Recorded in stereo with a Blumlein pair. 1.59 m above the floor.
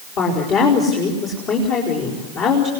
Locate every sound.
0.2 s a woman speaking: 40° left, 4.5 m